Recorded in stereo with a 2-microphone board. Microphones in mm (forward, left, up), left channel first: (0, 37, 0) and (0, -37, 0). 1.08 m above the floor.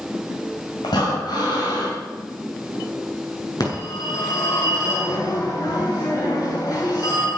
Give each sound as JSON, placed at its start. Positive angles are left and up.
{"t": 0.8, "sound": "breathing", "side_deg": 70, "distance_m": 6.0}
{"t": 3.6, "sound": "a phone ringing", "side_deg": 55, "distance_m": 7.5}